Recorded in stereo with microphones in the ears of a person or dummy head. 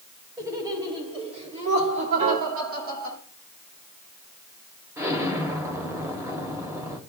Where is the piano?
60° right (ahead or behind), 2.5 m.